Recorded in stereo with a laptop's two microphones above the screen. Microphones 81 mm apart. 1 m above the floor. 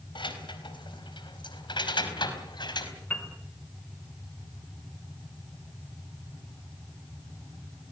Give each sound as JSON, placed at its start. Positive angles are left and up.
{"t": 0.1, "sound": "keys jangling", "side_deg": 80, "distance_m": 4.0}
{"t": 3.1, "sound": "a piano", "side_deg": 20, "distance_m": 4.0}